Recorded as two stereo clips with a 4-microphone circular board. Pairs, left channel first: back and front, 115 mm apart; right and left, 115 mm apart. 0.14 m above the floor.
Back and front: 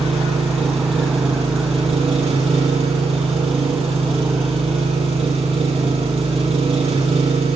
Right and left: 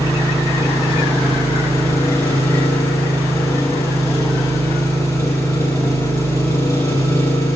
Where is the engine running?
30° right, 4 m.